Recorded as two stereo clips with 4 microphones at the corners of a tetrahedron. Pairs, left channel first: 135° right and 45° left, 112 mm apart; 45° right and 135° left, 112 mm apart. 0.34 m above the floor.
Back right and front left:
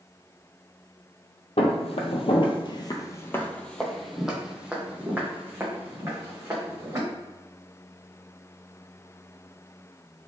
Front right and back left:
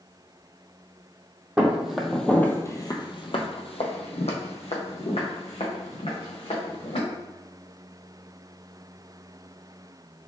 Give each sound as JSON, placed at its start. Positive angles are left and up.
{"t": 1.6, "sound": "footsteps", "azimuth_deg": -145, "distance_m": 0.9}